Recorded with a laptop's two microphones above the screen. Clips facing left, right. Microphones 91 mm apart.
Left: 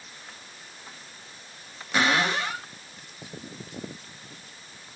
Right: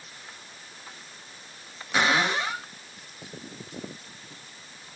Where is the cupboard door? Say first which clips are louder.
Even; centre (ahead or behind), 2 m.